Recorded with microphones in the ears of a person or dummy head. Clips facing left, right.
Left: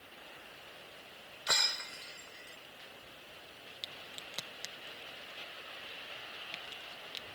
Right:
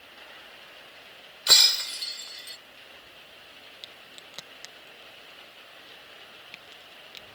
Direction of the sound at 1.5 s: 50° right (ahead or behind).